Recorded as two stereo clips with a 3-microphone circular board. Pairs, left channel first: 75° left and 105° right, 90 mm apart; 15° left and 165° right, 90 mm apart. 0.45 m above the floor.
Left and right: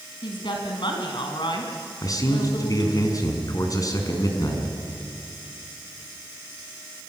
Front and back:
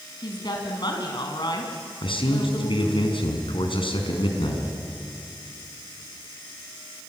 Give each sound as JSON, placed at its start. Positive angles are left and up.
{"t": 0.2, "sound": "a woman speaking", "azimuth_deg": 50, "distance_m": 4.0}
{"t": 2.0, "sound": "a man speaking", "azimuth_deg": 25, "distance_m": 5.0}